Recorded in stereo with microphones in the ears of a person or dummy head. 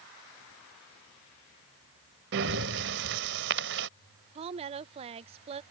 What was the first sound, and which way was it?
Breathing, 45° right (ahead or behind).